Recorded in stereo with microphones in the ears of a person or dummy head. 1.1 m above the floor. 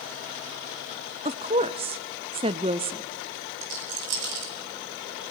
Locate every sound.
1.2 s a woman speaking: 25° right (ahead or behind), 0.5 m
3.6 s a rattle: 65° right (ahead or behind), 4 m